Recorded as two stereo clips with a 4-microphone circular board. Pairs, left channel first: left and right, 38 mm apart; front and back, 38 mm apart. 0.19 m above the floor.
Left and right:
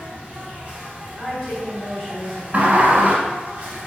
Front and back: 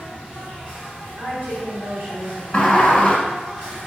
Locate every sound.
0.0 s an insect: 125° right, 1.4 m
1.2 s a woman speaking: 175° right, 1.8 m
2.5 s a sliding door: 55° right, 0.6 m